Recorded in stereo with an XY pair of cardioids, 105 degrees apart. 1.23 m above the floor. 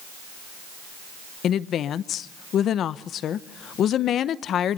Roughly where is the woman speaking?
Ahead left.